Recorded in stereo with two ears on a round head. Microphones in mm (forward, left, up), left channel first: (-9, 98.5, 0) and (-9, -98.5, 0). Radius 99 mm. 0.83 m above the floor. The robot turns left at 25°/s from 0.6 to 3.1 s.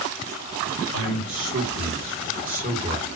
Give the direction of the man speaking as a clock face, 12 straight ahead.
3 o'clock.